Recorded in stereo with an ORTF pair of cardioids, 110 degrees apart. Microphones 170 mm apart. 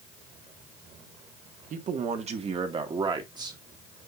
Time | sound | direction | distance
1.7 | a man speaking | 50° right | 1.8 m